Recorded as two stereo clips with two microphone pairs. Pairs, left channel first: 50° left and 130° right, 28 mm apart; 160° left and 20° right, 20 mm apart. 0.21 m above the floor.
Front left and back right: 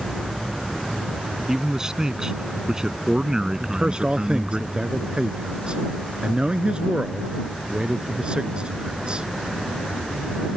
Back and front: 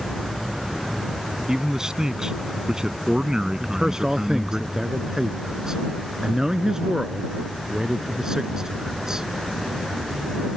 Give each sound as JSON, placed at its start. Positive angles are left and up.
{"t": 1.5, "sound": "a man speaking", "azimuth_deg": -75}
{"t": 3.6, "sound": "a man speaking", "azimuth_deg": -85}